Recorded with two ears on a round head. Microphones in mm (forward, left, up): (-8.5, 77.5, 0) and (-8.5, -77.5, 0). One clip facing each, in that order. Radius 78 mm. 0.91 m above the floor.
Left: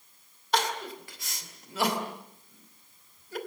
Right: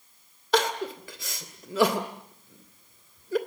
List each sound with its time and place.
0.5 s crying: 70° right (ahead or behind), 2.5 m